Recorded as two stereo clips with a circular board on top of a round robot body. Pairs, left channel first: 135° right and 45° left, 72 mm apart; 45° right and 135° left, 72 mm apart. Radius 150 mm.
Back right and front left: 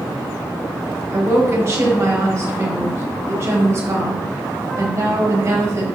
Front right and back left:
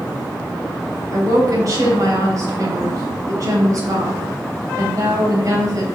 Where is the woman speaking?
95° left, 3.5 m.